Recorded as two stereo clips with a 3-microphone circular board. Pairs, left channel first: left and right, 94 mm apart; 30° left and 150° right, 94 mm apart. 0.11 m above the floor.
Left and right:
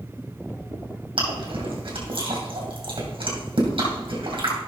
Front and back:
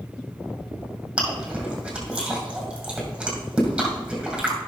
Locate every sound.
1.2 s chewing: 70° right, 2.5 m